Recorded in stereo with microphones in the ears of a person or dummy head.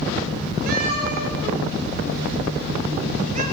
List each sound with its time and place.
0.7 s a cat meowing: 55° right (ahead or behind), 8 m; by 3.4 s 40° right (ahead or behind), 7.5 m